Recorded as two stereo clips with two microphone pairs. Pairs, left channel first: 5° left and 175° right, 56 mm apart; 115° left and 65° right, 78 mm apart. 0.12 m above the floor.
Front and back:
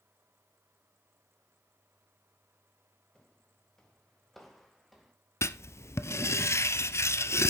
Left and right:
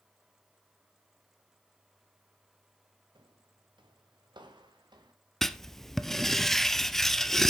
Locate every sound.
3.1 s footsteps: 70° right, 2 m; by 5.1 s 85° right, 3 m
5.4 s writing: 35° left, 0.5 m